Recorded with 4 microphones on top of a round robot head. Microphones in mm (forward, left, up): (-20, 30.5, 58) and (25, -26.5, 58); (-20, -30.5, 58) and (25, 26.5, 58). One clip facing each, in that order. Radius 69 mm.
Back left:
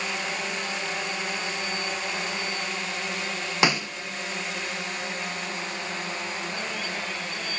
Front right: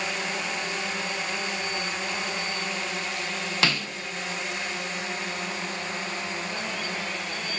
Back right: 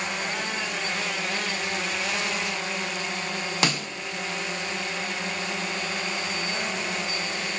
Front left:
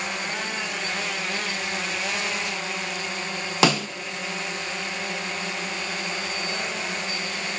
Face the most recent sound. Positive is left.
turn(degrees=55)